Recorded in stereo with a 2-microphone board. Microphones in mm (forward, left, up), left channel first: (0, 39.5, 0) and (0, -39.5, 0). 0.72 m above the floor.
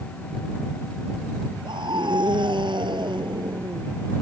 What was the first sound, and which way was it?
A scream, 85° right.